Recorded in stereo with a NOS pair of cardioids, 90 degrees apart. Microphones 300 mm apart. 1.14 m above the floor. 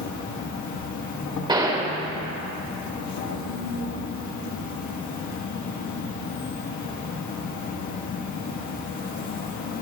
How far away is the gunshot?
About 2.5 m.